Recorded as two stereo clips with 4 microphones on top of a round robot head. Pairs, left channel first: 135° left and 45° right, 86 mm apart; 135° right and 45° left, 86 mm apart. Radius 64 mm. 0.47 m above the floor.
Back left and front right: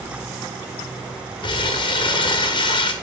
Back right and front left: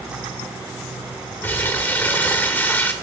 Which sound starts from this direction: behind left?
Crumpling, at 1.4 s.